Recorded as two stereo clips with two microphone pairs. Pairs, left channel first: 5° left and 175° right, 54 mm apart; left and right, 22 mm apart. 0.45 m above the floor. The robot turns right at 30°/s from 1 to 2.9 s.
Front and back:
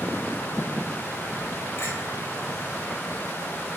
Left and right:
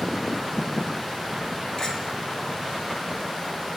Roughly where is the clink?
Ahead left.